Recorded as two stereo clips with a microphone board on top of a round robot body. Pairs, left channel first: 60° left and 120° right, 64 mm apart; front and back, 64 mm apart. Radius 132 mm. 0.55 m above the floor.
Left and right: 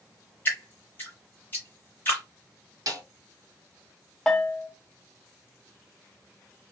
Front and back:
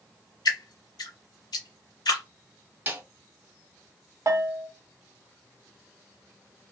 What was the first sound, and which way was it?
Dripping, straight ahead.